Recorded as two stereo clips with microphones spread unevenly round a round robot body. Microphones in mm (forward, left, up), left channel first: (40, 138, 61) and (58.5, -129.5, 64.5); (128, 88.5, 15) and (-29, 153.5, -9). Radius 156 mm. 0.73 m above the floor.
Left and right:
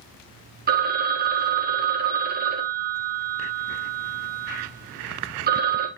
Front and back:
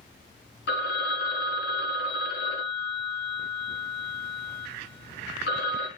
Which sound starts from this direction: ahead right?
A phone ringing, at 0.7 s.